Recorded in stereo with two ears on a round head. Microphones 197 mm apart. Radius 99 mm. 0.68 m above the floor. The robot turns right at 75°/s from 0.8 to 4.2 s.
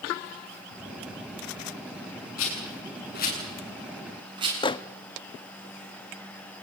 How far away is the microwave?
About 0.6 m.